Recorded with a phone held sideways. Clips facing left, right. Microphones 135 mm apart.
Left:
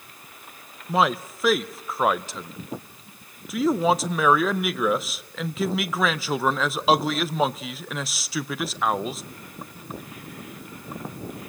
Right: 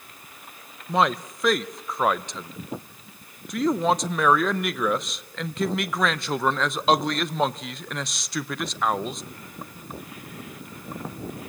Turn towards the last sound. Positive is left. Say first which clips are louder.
# even
turn(degrees=5)  # may be behind; listen again after turning